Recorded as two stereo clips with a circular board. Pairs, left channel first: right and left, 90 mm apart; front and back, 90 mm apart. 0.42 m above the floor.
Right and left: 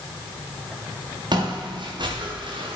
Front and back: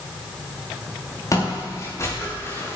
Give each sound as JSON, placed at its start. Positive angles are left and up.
{"t": 1.3, "sound": "footsteps", "azimuth_deg": 55, "distance_m": 5.5}